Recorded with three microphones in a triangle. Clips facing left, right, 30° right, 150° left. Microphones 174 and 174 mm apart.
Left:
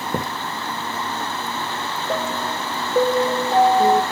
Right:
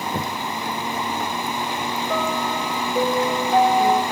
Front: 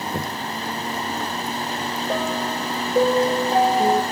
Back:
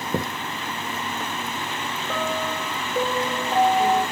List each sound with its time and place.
0.1 s a thud: 130° left, 7.5 m
2.1 s a piano: 35° left, 2.5 m